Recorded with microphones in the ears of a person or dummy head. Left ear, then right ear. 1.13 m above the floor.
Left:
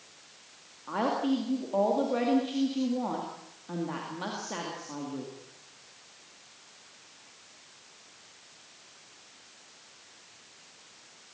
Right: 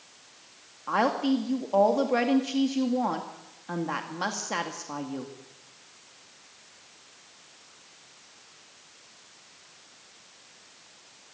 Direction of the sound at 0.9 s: 50° right (ahead or behind).